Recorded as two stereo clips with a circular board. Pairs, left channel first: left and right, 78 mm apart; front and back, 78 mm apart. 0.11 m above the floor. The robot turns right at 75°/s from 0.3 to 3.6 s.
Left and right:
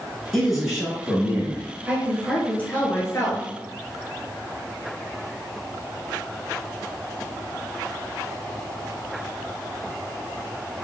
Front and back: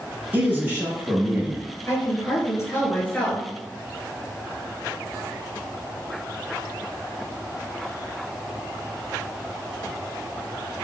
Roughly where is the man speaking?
Behind.